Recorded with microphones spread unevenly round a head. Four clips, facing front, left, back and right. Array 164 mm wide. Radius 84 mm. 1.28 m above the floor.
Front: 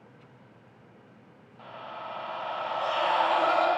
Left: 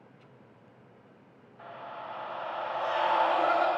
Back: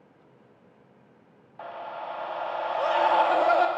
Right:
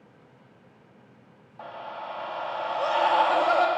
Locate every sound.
1.6 s a scream: 160° right, 0.6 m